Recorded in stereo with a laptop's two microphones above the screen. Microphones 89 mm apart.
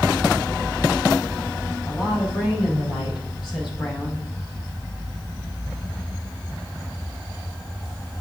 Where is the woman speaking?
55° left (ahead or behind), 5.5 m; by 4.3 s 60° left (ahead or behind), 7 m.